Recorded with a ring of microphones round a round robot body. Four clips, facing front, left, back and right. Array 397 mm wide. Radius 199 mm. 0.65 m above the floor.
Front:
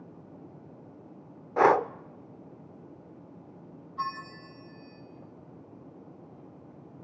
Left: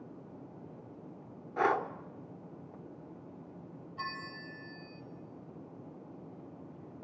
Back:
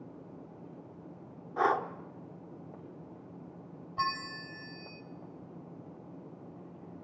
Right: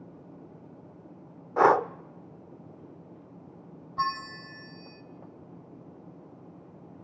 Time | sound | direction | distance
1.6 | breathing | 45° right | 0.5 m
4.0 | a bell | 135° right | 1.9 m